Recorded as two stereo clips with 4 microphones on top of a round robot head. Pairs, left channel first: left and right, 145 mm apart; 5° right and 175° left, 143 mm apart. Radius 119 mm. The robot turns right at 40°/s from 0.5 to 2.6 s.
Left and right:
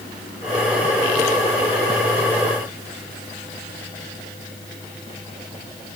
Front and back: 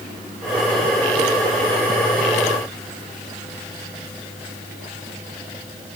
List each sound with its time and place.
Only background noise.